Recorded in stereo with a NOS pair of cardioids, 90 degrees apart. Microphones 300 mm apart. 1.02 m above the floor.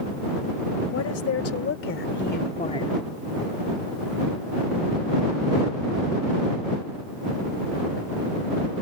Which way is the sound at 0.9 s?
55° left.